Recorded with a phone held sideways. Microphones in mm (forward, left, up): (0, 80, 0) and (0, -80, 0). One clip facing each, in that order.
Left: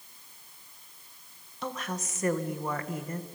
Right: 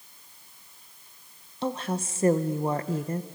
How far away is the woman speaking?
About 0.9 m.